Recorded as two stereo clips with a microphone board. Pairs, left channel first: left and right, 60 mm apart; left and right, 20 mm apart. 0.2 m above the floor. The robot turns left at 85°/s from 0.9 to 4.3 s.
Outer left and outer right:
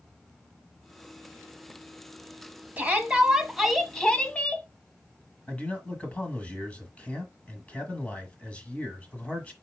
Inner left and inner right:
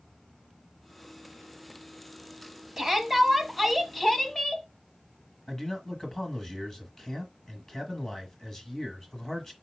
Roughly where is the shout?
Right.